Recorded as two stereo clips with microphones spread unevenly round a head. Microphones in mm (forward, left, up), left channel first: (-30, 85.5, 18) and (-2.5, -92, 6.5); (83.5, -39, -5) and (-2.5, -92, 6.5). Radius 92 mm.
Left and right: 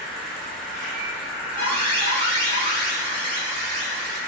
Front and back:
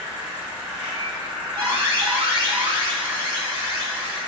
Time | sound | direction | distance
0.0 | an insect | 170° right | 1.2 m
1.6 | an alarm | 125° right | 1.5 m